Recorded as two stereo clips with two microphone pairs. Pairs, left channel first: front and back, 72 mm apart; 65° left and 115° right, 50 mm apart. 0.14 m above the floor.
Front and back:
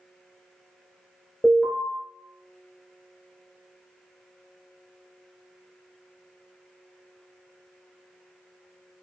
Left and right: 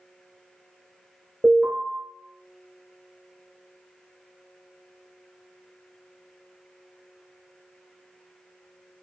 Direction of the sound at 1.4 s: 75° right.